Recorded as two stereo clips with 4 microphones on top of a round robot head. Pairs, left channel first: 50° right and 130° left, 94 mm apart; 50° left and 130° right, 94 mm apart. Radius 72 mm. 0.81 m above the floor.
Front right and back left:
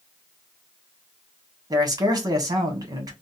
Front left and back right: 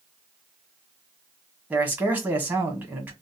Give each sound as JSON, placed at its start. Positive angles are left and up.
{"t": 1.7, "sound": "a man speaking", "azimuth_deg": 165, "distance_m": 1.4}